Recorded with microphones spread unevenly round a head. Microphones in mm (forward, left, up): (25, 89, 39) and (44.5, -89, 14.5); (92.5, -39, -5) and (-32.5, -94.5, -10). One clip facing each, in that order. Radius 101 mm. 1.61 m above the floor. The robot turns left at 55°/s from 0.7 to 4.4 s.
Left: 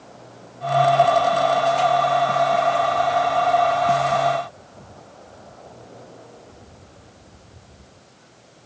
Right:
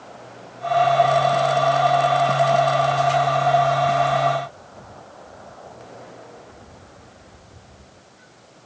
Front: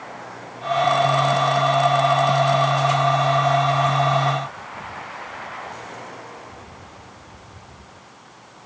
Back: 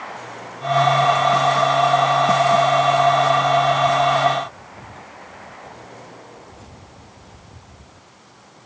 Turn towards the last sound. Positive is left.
No sound to turn to.